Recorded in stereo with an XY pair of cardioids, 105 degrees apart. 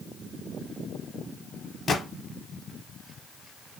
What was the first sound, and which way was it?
A gunshot, 45° left.